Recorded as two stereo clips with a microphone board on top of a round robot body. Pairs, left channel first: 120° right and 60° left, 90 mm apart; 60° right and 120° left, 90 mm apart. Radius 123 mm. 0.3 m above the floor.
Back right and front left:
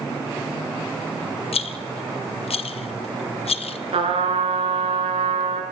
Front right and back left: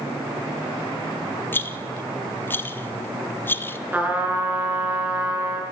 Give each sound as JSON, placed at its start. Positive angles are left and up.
{"t": 1.5, "sound": "a rattle", "azimuth_deg": -125, "distance_m": 0.6}
{"t": 3.9, "sound": "a trumpet", "azimuth_deg": 50, "distance_m": 5.0}